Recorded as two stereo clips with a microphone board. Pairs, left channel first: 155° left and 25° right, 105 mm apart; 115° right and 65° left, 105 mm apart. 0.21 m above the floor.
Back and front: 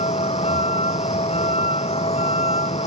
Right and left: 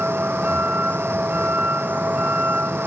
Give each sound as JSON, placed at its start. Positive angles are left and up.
{"t": 0.0, "sound": "a vehicle", "azimuth_deg": 140}